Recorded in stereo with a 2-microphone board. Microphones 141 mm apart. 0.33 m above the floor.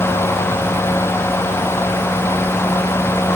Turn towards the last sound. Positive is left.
No sound to turn to.